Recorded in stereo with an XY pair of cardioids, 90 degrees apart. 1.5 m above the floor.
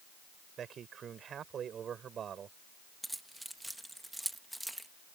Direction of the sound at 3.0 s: 5° right.